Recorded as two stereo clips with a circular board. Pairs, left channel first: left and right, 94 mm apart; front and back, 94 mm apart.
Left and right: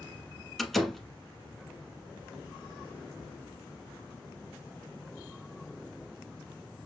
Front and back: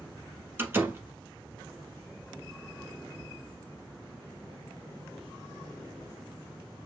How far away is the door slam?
About 1.0 m.